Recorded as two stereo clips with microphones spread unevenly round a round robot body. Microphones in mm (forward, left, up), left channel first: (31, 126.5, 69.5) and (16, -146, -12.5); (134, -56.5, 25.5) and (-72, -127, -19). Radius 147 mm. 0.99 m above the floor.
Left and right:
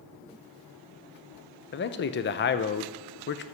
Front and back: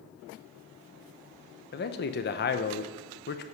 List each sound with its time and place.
1.7 s a man speaking: 35° left, 0.7 m